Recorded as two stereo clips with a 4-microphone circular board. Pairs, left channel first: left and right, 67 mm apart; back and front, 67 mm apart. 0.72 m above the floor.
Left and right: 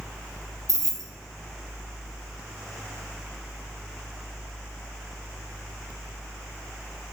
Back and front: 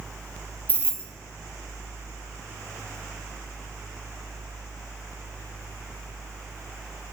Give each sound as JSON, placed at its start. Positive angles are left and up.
{"t": 0.7, "sound": "keys jangling", "azimuth_deg": -120, "distance_m": 0.7}